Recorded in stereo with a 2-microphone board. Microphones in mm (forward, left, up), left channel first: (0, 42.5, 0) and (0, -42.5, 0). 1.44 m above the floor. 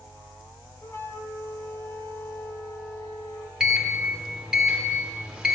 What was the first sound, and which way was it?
A flute, 35° left (ahead or behind).